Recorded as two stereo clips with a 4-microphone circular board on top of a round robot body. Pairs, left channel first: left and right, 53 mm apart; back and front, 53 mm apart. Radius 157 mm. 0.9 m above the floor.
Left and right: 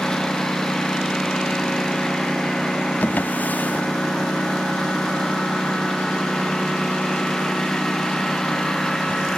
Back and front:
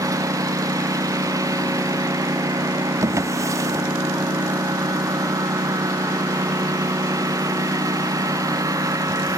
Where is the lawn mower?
10° left.